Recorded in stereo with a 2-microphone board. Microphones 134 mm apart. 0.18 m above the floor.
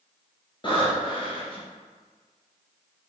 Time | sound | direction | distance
0.6 | breathing | 35° left (ahead or behind) | 2.5 m